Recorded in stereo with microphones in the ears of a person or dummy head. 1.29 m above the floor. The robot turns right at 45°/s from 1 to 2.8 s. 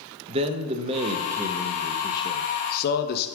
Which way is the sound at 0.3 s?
30° right.